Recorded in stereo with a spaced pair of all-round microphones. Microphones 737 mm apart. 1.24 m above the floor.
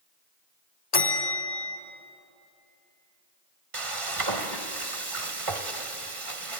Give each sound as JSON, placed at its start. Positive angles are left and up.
{"t": 0.9, "sound": "a bell", "side_deg": 30, "distance_m": 1.4}
{"t": 3.7, "sound": "frying", "side_deg": -40, "distance_m": 1.3}